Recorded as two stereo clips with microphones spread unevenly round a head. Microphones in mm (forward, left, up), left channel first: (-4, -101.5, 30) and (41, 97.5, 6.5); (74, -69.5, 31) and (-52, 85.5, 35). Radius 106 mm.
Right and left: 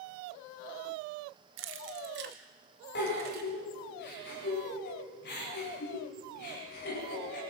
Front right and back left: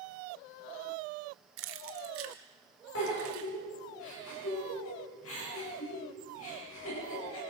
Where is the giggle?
70° right, 9.5 m.